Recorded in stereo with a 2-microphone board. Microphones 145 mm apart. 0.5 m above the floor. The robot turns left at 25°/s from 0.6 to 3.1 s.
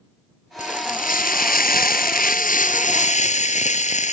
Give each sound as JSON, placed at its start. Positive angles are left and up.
{"t": 0.6, "sound": "frying", "azimuth_deg": 120}